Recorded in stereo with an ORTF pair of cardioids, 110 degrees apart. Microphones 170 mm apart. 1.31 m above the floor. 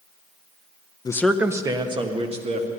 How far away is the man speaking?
About 0.6 m.